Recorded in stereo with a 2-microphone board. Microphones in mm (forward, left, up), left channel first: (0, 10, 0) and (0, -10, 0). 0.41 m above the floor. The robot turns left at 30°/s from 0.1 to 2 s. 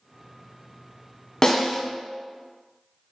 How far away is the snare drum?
About 0.7 m.